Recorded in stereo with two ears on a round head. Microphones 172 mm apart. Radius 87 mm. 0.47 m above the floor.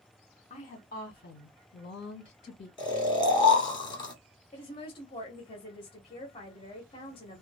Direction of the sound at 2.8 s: 25° left (ahead or behind).